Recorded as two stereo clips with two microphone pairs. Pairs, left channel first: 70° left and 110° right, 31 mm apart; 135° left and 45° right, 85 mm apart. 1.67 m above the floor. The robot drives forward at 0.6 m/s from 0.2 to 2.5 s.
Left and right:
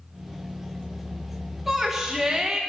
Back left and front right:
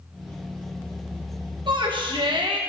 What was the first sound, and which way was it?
A shout, 30° right.